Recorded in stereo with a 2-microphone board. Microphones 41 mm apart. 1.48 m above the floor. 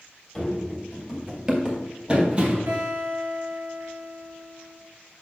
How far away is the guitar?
About 3.5 m.